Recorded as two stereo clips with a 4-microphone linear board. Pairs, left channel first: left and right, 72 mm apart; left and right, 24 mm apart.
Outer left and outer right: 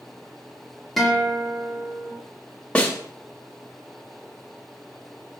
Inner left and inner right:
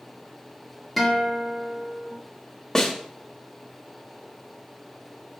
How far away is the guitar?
About 1.9 m.